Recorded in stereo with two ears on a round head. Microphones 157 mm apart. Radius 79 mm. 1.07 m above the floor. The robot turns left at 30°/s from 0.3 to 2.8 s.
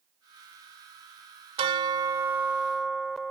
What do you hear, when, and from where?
1.6 s a bell: 145° right; by 3.3 s straight behind